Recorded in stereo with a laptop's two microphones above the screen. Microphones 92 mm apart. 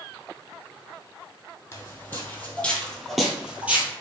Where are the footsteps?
30° left (ahead or behind), 1.5 m; by 3.9 s 20° right (ahead or behind), 1.1 m.